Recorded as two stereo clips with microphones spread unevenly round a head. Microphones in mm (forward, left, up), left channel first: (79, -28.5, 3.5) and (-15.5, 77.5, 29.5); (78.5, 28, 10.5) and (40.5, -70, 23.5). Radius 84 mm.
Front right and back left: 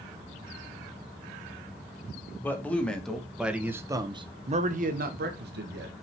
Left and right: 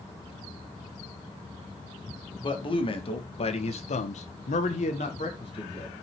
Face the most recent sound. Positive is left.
turn(degrees=130)